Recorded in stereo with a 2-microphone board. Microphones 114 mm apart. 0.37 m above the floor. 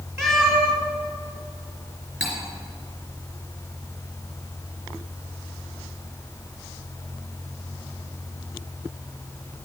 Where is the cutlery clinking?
5° right (ahead or behind), 3 m.